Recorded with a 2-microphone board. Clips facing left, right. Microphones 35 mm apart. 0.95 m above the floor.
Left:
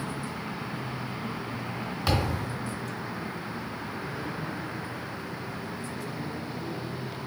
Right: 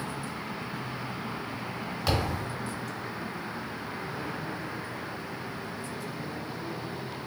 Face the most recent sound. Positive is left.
turn(degrees=5)  # may be behind; listen again after turning